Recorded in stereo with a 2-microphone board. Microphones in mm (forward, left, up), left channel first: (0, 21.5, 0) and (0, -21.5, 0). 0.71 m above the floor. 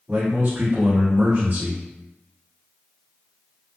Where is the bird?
I don't hear a bird.